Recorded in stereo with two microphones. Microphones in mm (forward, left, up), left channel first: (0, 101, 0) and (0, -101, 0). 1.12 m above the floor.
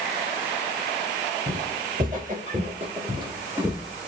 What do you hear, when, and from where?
1.5 s footsteps: 45° right (ahead or behind), 2 m; by 4.1 s 10° left (ahead or behind), 1.1 m